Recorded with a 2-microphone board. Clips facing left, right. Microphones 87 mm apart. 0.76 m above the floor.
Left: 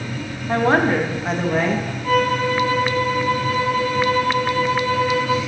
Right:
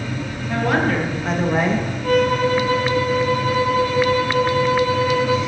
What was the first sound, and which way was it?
A woman speaking, 35° left (ahead or behind).